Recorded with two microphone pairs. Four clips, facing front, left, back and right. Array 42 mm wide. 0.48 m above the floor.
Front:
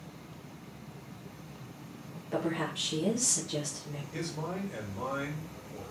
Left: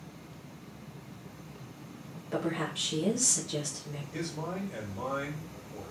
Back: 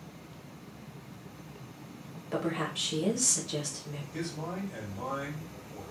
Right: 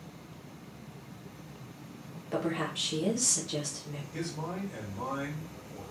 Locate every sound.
2.3 s a woman speaking: 125° right, 1.0 m
4.1 s a man speaking: 25° left, 1.5 m